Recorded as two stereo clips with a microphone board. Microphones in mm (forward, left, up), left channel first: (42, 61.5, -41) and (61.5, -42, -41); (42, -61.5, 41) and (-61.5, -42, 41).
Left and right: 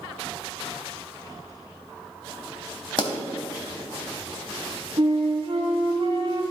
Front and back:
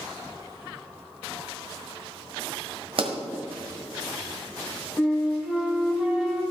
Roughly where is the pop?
Behind left.